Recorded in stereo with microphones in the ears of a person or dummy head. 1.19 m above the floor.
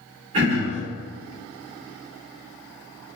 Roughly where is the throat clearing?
Right.